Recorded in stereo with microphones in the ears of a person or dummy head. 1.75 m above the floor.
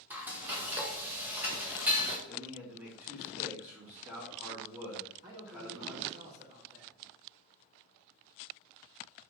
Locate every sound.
0.1 s frying: 10° right (ahead or behind), 1.6 m
2.3 s a man speaking: 10° right (ahead or behind), 4.5 m
5.2 s a man speaking: 45° right (ahead or behind), 3.5 m